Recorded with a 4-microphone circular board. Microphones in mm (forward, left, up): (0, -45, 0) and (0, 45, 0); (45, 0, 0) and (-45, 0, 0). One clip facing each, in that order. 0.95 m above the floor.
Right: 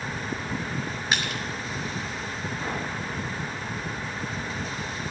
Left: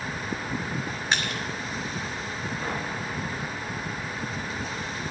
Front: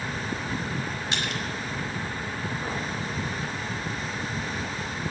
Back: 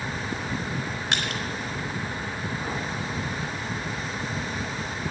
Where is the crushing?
175° right, 3 m.